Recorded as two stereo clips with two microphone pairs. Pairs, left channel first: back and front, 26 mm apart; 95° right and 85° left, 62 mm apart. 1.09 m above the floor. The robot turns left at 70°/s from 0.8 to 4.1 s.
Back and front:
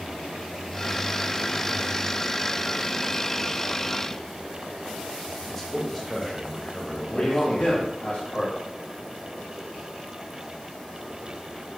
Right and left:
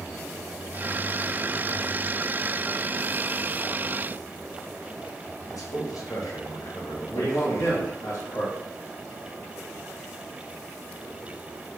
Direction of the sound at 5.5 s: 95° right.